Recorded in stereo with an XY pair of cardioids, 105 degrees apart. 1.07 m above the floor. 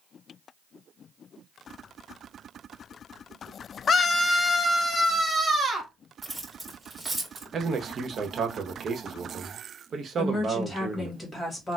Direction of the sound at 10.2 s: 25° left.